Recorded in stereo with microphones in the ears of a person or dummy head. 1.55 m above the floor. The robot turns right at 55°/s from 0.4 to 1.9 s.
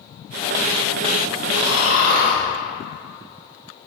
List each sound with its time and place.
1.5 s snoring: 20° right (ahead or behind), 1.6 m; by 2.4 s 40° right (ahead or behind), 1.6 m